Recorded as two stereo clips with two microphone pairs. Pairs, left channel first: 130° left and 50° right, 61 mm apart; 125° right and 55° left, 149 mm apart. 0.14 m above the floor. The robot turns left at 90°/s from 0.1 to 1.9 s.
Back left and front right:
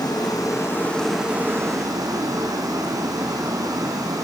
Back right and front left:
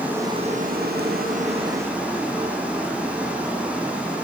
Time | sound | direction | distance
0.0 | running water | 135° left | 4.5 m